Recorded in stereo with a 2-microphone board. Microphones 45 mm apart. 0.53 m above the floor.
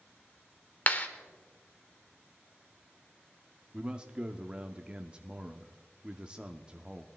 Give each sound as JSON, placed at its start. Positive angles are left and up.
{"t": 0.9, "sound": "a clap", "side_deg": 35, "distance_m": 1.0}
{"t": 3.7, "sound": "a man speaking", "side_deg": -20, "distance_m": 0.7}